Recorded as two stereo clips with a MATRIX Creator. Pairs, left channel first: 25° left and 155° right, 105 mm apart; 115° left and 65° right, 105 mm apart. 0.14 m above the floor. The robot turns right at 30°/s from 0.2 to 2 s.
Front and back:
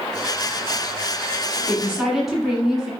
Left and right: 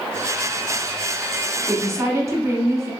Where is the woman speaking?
85° right, 1.4 m; by 2.9 s 75° right, 1.4 m.